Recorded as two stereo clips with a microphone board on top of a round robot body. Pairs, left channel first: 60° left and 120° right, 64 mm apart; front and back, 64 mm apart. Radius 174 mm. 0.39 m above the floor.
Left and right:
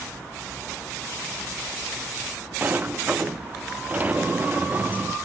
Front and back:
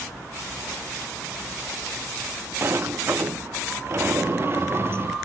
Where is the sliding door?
165° right, 0.7 m.